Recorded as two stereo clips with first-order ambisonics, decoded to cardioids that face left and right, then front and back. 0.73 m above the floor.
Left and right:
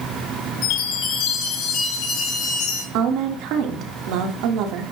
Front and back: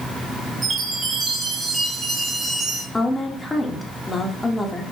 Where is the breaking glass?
No breaking glass in this recording.